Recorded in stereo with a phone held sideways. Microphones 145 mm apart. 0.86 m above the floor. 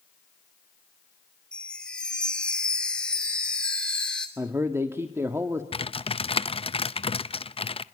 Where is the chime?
5° left (ahead or behind), 2.5 m.